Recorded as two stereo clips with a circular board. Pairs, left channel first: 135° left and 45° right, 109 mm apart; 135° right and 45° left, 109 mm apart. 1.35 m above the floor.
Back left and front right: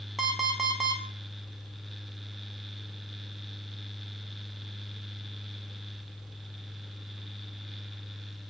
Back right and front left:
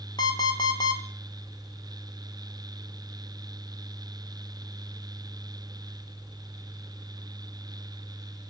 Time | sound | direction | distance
0.2 | an alarm clock | 135° right | 0.6 m